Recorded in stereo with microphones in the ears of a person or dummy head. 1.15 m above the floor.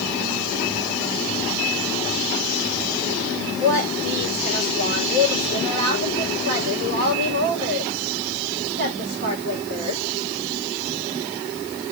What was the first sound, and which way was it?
A woman speaking, 55° right (ahead or behind).